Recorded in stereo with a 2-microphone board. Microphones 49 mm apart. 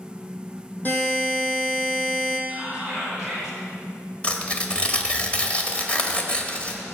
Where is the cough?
I don't hear a cough.